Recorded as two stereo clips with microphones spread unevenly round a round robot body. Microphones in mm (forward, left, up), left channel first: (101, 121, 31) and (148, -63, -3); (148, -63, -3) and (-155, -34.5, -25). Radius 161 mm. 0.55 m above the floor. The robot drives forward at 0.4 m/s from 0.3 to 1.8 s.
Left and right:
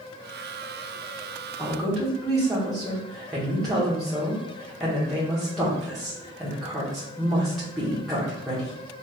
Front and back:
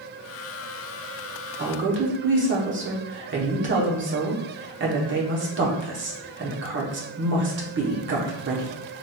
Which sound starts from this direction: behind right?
A woman speaking, at 1.6 s.